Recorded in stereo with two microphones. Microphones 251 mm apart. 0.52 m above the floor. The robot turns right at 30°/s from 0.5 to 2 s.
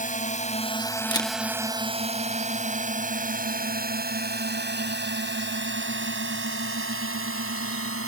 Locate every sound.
0.0 s a drone: 30° left (ahead or behind); by 8.1 s 60° right (ahead or behind)
1.1 s a camera shutter: 15° left (ahead or behind); by 1.3 s 10° left (ahead or behind)